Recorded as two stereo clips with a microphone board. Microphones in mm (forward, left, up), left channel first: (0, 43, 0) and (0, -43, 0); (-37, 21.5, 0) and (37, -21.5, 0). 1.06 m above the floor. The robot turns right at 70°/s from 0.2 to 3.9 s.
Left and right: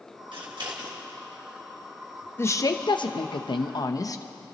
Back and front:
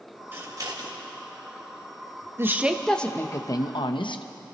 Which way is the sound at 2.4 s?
30° left.